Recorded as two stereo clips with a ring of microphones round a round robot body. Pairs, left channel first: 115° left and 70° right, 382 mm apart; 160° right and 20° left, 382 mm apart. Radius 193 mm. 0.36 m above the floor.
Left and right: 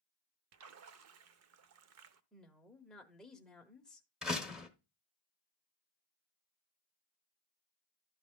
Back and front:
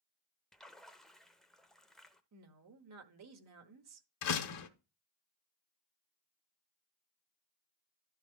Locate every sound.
0.5 s a splash: 70° right, 0.6 m
2.3 s a woman speaking: 25° left, 1.1 m
4.2 s a door slam: 155° right, 1.1 m